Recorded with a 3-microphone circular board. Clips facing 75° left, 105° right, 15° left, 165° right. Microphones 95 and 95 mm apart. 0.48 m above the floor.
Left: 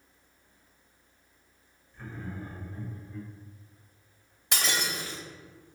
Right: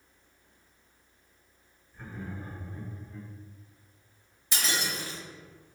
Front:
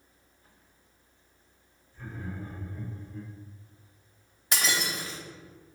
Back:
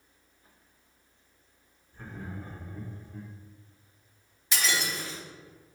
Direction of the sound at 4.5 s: 60° left.